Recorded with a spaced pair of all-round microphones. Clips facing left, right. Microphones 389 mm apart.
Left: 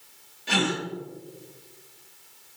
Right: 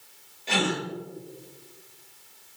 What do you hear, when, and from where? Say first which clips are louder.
0.5 s a gasp: left 1 dB; 25° left (ahead or behind), 1.5 m